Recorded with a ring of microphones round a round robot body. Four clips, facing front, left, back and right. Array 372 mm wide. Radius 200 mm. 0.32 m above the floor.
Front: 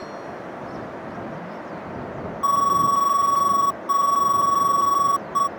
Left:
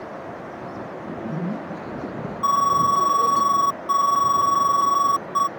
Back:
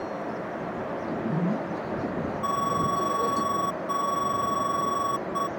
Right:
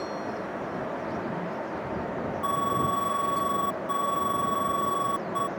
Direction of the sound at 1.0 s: 135° left.